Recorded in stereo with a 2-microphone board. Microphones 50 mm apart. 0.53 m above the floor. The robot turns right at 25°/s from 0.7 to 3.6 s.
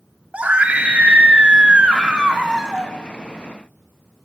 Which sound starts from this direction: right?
A scream, at 0.3 s.